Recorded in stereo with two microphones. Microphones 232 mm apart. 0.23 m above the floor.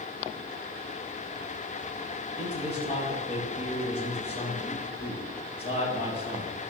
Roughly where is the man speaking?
Left.